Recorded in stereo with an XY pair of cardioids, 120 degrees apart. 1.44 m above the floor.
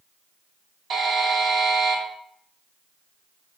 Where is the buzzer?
55° right, 2.0 m.